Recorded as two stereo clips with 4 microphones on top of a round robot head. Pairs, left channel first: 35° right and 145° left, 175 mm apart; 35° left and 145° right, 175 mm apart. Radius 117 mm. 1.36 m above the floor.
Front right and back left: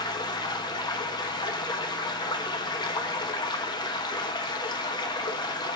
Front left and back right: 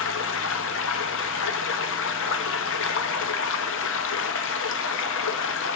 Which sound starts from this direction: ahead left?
Running water, at 0.0 s.